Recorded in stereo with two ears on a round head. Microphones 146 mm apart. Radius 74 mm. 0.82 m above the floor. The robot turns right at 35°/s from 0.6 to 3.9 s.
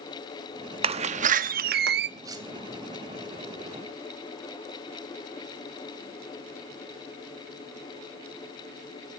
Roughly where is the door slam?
Behind right.